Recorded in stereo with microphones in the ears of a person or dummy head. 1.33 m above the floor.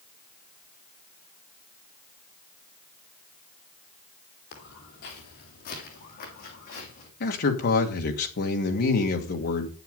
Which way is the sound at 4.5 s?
50° left (ahead or behind).